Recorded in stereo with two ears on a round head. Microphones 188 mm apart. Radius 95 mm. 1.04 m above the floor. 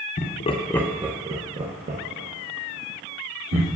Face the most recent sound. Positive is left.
turn(degrees=-55)  # may be behind; listen again after turning